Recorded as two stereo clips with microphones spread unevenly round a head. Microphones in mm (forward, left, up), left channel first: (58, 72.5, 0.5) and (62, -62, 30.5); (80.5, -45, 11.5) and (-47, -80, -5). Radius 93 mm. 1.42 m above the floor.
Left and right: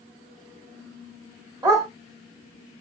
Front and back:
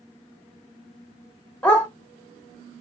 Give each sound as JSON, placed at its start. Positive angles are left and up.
{"t": 1.6, "sound": "a dog barking", "azimuth_deg": -55, "distance_m": 1.5}